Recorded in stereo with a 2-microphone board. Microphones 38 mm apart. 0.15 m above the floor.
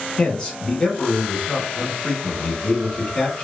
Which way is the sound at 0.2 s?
15° left (ahead or behind).